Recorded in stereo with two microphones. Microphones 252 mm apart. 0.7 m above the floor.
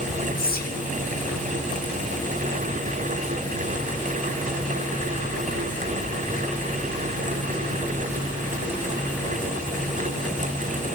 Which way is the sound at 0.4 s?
35° left (ahead or behind).